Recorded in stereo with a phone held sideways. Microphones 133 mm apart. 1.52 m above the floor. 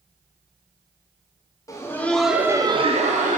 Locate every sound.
1.7 s laughter: 25° left (ahead or behind), 0.7 m; by 3.4 s 70° right (ahead or behind), 0.7 m